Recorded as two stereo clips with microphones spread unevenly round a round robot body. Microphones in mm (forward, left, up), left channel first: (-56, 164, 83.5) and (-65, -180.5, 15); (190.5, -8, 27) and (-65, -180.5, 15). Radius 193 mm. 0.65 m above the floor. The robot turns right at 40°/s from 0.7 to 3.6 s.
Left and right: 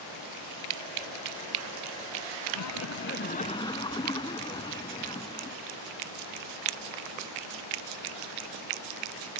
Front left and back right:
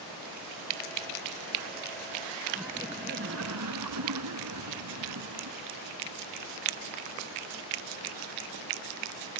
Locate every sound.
2.5 s laughter: 125° left; by 5.6 s 165° left